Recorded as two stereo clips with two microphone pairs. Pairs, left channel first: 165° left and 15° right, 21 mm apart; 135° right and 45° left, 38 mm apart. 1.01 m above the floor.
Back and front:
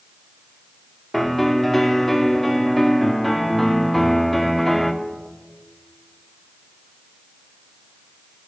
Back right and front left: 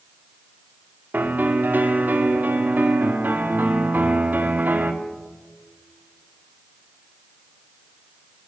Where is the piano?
80° left, 1.4 m.